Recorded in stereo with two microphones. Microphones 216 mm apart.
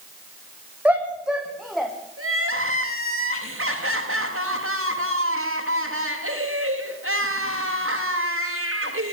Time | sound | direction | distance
0.8 | a shout | 5° right (ahead or behind) | 5.5 m
2.2 | crying | 85° right | 7 m